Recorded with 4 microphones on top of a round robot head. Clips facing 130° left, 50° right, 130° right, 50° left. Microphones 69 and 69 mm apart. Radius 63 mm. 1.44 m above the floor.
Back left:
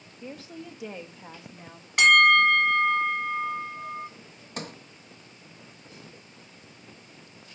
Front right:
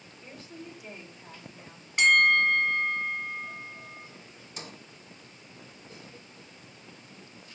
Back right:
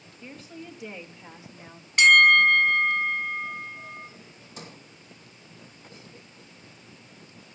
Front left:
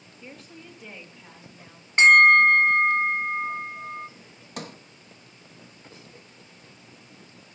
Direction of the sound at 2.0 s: 110° left.